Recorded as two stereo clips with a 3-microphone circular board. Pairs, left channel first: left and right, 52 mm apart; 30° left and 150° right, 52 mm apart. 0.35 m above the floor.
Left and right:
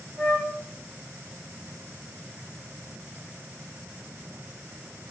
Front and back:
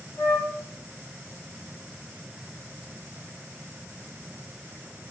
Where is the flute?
10° left, 0.7 m.